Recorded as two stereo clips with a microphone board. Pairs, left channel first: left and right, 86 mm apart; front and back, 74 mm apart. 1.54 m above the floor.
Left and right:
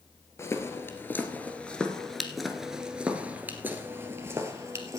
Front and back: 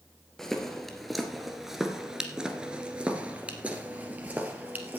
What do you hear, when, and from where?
0.4 s footsteps: 80° left, 1.7 m; by 5.0 s 120° right, 2 m